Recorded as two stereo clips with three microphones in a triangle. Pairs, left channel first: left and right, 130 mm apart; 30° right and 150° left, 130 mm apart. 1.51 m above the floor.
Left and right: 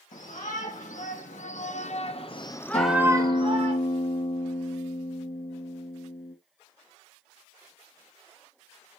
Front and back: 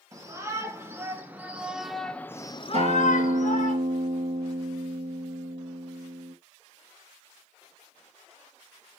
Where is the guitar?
120° left, 2.5 m.